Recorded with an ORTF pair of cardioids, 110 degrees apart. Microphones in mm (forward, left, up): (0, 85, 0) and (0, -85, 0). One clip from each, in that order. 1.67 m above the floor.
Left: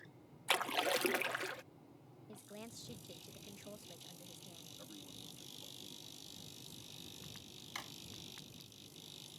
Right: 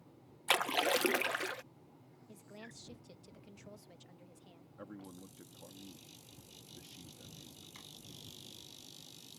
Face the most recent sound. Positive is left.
turn(degrees=65)